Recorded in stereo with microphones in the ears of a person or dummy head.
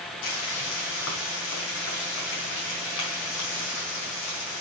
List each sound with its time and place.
0.2 s frying: 70° left (ahead or behind), 5 m